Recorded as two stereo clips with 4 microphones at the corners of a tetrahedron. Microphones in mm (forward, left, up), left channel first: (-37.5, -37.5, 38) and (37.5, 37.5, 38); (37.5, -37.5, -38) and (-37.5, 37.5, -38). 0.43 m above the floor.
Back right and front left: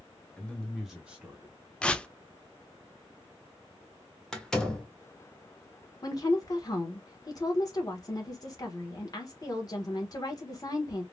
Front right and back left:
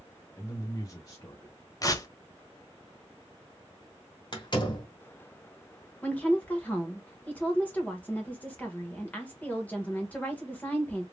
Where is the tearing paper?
60° right, 0.5 m.